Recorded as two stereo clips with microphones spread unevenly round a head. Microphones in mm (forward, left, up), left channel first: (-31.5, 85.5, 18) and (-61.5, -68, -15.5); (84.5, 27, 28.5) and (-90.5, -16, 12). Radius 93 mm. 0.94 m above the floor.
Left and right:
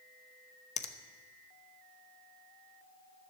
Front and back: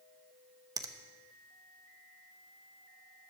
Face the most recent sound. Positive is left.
turn(degrees=125)